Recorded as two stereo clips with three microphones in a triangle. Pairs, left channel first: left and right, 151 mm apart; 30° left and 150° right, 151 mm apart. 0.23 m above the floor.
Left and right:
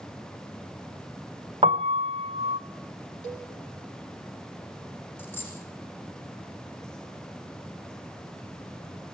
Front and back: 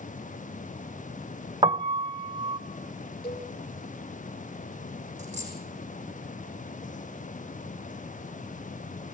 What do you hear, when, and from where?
1.6 s a piano: 110° right, 0.7 m
3.2 s a cowbell: 50° left, 5 m
5.2 s a dropped coin: 165° left, 5.5 m